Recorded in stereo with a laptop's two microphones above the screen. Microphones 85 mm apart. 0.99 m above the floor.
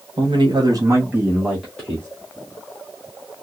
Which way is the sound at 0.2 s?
70° right (ahead or behind).